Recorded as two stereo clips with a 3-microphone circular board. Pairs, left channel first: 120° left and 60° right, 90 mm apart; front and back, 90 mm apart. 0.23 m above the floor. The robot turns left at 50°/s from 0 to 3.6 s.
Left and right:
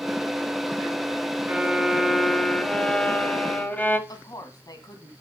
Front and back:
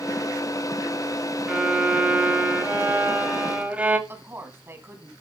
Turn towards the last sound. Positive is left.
turn(degrees=125)